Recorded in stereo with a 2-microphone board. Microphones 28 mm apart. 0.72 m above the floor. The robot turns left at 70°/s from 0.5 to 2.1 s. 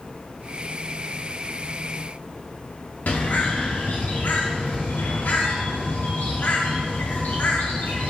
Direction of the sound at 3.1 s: 70° left (ahead or behind).